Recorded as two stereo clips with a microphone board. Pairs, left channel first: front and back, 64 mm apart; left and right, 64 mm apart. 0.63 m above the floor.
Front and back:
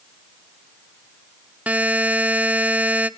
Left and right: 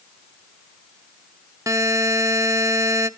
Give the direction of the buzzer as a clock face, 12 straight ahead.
4 o'clock.